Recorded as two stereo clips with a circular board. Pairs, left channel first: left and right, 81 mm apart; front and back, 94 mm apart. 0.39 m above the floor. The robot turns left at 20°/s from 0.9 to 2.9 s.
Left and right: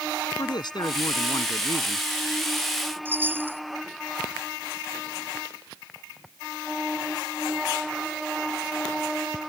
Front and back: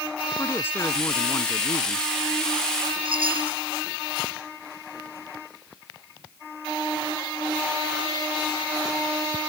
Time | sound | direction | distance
0.4 | a man speaking | 65° left | ?
3.0 | a chime | 155° right | ?